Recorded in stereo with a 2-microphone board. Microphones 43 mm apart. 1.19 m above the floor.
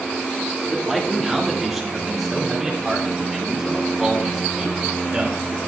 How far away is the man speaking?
About 2.0 m.